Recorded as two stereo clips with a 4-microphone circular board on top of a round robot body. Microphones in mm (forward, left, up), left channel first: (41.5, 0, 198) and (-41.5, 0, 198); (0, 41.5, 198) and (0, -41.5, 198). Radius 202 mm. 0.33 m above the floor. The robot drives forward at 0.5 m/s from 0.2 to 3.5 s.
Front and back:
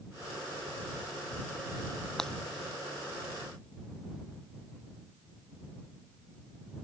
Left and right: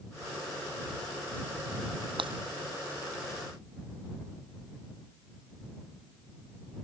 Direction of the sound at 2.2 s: 85° right.